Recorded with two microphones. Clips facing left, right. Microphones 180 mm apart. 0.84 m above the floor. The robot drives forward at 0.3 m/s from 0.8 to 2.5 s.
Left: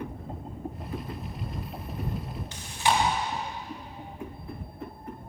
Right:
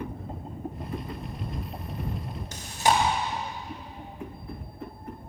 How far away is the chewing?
About 1.0 m.